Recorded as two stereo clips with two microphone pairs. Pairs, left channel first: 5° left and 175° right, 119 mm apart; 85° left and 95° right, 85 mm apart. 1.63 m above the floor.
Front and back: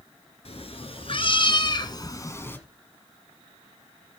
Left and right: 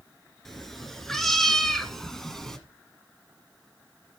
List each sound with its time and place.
0.5 s a cat meowing: straight ahead, 3 m; by 2.6 s 15° left, 1.5 m